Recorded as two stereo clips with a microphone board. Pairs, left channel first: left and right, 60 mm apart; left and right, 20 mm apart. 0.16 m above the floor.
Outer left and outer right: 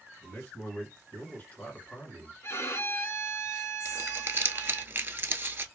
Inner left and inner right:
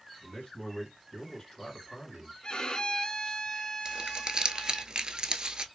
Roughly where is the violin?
Left.